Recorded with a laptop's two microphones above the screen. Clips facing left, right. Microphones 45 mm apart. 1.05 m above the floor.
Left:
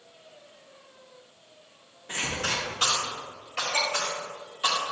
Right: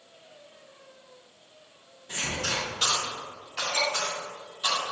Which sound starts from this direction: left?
A cough, at 2.1 s.